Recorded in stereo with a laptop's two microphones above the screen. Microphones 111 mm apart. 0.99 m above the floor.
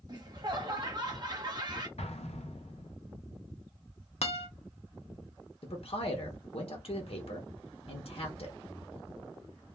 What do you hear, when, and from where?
0.1 s laughter: 40° right (ahead or behind), 1.0 m
2.0 s an explosion: 75° left (ahead or behind), 0.6 m
4.2 s a guitar: 75° left (ahead or behind), 0.7 m
5.6 s a man speaking: 65° left (ahead or behind), 0.7 m